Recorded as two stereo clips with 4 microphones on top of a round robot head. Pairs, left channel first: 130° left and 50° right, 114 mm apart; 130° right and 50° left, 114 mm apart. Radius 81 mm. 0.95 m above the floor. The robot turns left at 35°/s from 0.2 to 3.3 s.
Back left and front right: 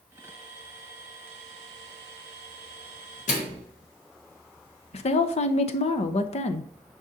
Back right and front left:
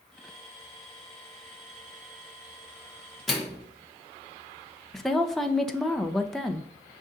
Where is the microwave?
140° left, 1.0 m.